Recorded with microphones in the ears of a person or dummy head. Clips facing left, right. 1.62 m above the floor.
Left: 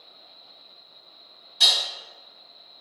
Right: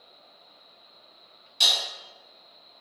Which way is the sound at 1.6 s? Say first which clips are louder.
Left 1 dB; 25° right (ahead or behind).